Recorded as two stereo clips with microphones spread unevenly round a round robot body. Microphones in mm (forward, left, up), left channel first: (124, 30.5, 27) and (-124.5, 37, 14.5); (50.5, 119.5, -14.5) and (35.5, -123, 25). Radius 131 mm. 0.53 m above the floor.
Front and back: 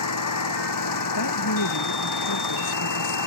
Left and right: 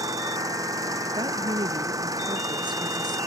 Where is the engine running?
20° right.